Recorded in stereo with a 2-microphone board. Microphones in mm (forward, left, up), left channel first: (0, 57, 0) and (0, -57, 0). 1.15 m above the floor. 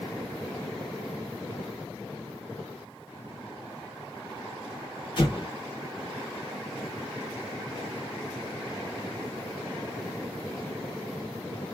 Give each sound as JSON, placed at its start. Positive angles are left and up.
{"t": 5.2, "sound": "an explosion", "side_deg": 50, "distance_m": 1.1}